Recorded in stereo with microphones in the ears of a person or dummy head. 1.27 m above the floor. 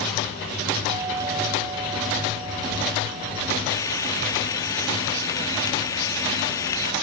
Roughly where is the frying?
Left.